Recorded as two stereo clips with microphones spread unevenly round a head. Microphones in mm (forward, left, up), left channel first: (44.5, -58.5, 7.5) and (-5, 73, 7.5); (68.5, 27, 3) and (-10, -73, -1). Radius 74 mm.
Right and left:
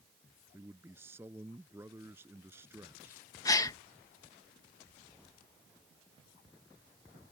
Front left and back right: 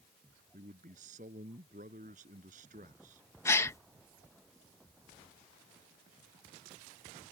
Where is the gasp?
10° right.